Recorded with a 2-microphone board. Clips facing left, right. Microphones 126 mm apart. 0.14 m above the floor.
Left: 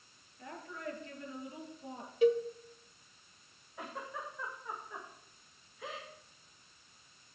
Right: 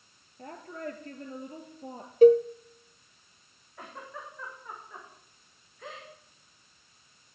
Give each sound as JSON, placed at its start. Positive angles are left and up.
{"t": 0.4, "sound": "a woman speaking", "side_deg": -40, "distance_m": 3.0}
{"t": 2.2, "sound": "a cowbell", "side_deg": -45, "distance_m": 0.7}
{"t": 3.8, "sound": "a giggle", "side_deg": 5, "distance_m": 5.5}